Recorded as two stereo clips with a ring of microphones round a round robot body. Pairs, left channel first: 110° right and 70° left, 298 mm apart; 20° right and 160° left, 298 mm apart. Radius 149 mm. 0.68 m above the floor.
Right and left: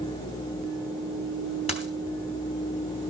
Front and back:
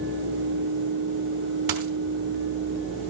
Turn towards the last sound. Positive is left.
turn(degrees=175)